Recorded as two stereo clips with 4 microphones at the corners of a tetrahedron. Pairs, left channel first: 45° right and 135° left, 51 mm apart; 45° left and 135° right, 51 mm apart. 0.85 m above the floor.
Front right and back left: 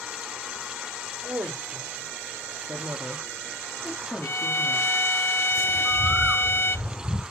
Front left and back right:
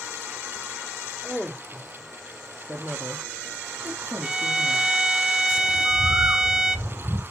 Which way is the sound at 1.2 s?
140° left.